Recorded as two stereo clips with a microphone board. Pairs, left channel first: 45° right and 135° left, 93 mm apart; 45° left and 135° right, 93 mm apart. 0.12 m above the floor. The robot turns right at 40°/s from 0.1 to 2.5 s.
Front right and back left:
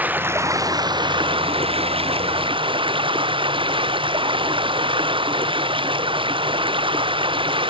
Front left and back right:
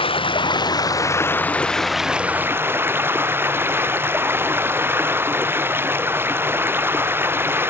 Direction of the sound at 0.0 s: 65° left.